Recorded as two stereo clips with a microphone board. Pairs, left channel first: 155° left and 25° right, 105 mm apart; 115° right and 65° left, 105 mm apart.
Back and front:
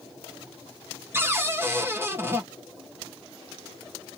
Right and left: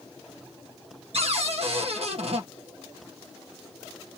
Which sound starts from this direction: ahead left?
A cupboard door, at 1.1 s.